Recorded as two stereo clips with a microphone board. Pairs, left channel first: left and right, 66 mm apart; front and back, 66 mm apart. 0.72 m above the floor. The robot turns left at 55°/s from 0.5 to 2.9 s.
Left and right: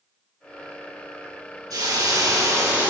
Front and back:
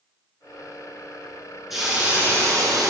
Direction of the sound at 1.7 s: 95° right.